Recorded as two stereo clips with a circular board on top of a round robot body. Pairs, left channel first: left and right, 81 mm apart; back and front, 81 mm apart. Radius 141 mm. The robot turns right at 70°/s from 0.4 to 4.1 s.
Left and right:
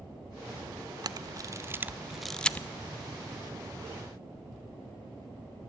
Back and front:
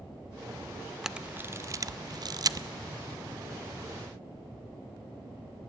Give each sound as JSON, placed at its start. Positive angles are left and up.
{"t": 1.0, "sound": "a camera shutter", "azimuth_deg": -85, "distance_m": 0.6}